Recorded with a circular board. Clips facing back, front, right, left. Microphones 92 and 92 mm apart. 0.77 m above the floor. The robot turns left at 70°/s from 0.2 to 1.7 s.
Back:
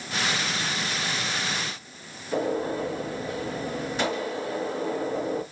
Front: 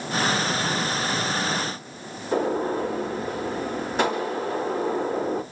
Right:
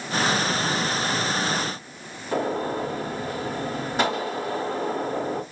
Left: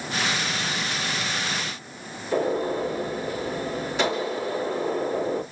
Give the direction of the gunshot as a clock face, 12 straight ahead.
1 o'clock.